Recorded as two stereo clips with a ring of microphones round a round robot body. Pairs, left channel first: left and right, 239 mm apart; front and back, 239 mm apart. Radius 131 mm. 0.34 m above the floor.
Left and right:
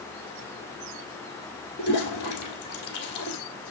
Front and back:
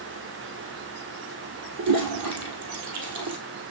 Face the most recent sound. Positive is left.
turn(degrees=145)